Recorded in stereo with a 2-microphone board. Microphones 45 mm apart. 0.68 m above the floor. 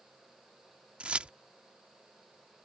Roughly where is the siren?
No siren in this recording.